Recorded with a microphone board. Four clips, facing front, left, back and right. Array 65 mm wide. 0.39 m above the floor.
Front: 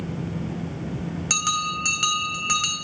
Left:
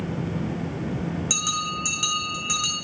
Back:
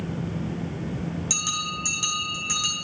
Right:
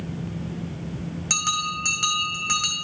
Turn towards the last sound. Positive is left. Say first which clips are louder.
# right 1 dB, front 6 dB
turn(degrees=-20)